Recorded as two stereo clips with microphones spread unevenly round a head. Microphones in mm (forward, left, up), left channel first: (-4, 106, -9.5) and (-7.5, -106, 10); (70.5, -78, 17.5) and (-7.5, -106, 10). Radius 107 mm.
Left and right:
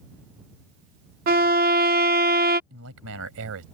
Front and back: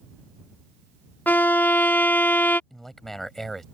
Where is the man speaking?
65° right.